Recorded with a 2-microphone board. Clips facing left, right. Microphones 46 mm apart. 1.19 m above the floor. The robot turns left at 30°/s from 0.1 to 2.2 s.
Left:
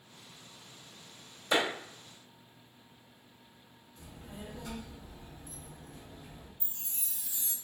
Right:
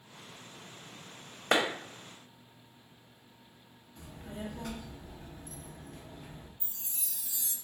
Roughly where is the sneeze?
No sneeze in this recording.